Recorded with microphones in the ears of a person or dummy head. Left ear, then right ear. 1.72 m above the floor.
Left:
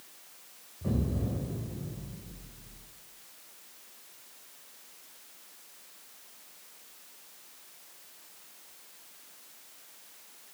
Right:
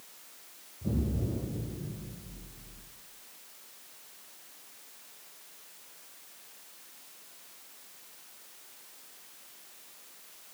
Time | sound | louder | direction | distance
0.8 | an explosion | left 1 dB | 75° left (ahead or behind) | 1.1 m